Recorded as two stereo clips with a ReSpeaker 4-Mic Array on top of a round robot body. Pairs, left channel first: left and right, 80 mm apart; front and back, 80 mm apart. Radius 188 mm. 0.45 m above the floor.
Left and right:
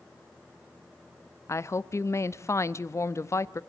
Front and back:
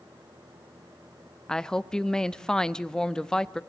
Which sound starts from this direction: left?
A woman speaking, at 1.5 s.